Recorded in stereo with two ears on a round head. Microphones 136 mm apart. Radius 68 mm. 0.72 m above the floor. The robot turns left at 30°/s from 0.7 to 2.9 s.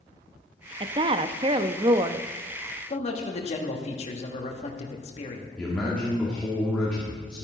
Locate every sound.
0.8 s a woman speaking: 90° right, 0.5 m; by 2.3 s 130° right, 0.5 m
2.9 s a man speaking: 40° left (ahead or behind), 1.5 m
5.6 s a man speaking: 5° left (ahead or behind), 2.0 m